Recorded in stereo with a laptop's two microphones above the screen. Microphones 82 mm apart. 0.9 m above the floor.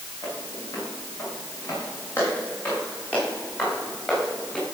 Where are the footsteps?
50° left (ahead or behind), 6.5 m; by 4.7 s 10° left (ahead or behind), 7 m.